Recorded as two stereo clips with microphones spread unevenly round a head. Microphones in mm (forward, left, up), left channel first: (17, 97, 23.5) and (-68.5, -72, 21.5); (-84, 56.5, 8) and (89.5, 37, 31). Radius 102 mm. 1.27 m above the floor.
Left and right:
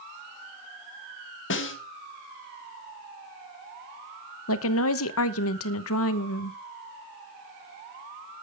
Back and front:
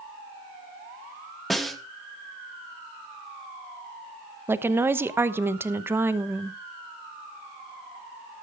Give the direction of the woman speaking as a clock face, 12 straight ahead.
10 o'clock.